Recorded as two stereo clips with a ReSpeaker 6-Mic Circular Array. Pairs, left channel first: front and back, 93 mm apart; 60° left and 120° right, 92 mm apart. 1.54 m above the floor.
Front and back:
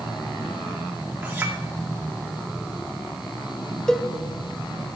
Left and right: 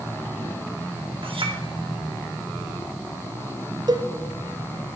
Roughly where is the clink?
Right.